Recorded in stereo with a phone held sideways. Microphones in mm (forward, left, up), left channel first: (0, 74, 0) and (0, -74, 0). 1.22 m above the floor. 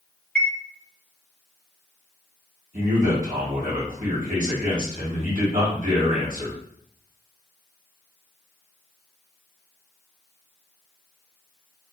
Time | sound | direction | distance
0.3 | a chime | 5° left (ahead or behind) | 1.4 m
2.7 | a man speaking | 70° right (ahead or behind) | 2 m